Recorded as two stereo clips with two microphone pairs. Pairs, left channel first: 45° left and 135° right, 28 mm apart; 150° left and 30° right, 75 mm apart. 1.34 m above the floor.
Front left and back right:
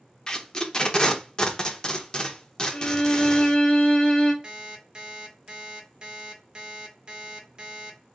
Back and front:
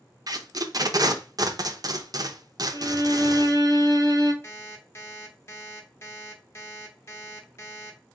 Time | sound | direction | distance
0.3 | tape being pulled | 15° right | 0.6 m
2.7 | a violin | 5° right | 1.0 m
4.4 | an alarm clock | 175° right | 1.0 m